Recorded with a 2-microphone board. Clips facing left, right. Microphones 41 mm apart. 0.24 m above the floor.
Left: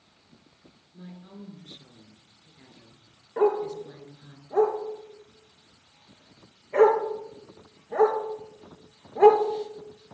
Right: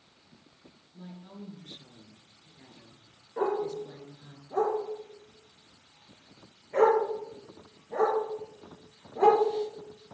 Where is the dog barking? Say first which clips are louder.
Left 6 dB; 35° left (ahead or behind), 2 m.